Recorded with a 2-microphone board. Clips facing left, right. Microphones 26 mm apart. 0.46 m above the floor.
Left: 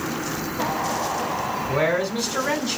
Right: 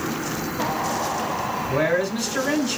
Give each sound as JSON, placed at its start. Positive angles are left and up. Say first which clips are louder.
{"t": 1.7, "sound": "a man speaking", "louder": "even", "side_deg": 15, "distance_m": 1.7}